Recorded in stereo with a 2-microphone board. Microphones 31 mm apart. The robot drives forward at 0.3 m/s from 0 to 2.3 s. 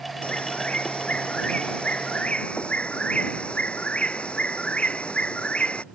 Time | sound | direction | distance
0.2 | a bird | 40° left (ahead or behind) | ?